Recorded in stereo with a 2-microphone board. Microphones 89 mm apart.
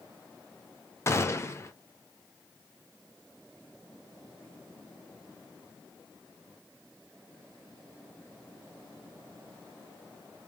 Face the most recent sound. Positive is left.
turn(degrees=30)  # may be behind; listen again after turning